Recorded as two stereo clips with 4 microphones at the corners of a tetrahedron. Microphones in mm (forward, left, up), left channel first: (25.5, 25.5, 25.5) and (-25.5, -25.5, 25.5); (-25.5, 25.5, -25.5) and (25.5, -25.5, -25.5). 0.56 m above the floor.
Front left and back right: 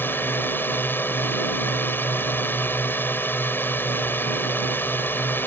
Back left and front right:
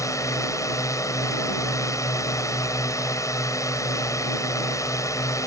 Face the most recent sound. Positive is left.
turn(degrees=100)